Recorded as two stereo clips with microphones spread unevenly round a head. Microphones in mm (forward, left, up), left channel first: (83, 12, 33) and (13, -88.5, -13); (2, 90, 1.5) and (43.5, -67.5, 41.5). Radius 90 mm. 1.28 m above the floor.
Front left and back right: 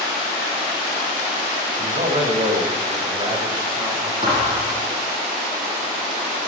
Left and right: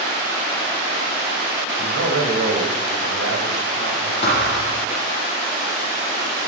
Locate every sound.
1.8 s a man speaking: 90° right, 6 m; by 4.1 s 60° right, 6 m
4.2 s a thud: 165° left, 8.5 m